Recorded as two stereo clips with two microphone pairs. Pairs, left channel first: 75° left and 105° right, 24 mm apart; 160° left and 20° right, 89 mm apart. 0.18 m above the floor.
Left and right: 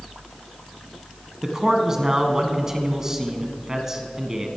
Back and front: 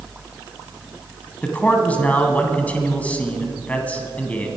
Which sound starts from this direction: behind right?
A man speaking, at 1.4 s.